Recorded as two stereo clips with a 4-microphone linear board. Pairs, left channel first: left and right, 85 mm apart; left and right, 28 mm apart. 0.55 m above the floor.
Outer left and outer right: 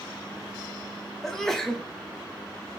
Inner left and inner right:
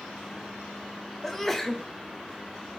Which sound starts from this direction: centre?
A sneeze, at 1.2 s.